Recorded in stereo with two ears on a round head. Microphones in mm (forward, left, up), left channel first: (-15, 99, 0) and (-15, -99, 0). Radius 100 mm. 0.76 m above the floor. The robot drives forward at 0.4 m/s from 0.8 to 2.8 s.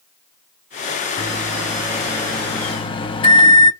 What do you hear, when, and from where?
1.2 s a microwave: 10° left (ahead or behind), 1.1 m; by 3.7 s 20° left (ahead or behind), 0.5 m